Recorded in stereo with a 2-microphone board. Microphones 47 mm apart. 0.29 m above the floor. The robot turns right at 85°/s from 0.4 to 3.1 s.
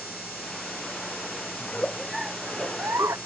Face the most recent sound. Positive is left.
turn(degrees=-95)